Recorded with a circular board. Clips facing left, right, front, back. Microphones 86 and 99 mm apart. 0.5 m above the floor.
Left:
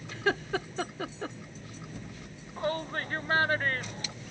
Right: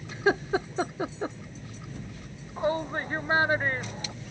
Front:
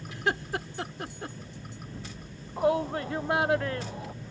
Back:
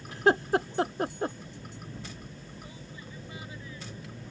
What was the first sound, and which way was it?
Laughter, 150° right.